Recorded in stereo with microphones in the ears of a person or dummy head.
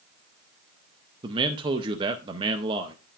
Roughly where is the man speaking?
Centre.